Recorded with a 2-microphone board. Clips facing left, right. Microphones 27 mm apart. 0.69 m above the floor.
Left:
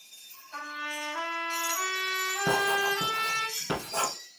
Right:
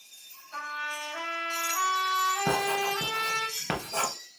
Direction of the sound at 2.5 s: 60° right (ahead or behind).